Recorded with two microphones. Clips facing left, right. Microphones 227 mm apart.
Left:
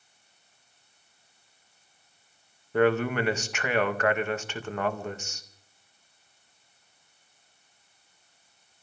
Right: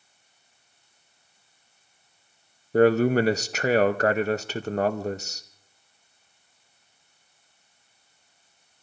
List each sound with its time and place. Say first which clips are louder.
2.7 s a man speaking: right 5 dB; 40° right (ahead or behind), 0.7 m